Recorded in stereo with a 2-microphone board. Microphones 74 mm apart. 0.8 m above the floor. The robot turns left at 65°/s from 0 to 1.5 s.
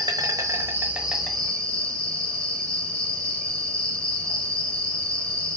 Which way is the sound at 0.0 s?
95° right.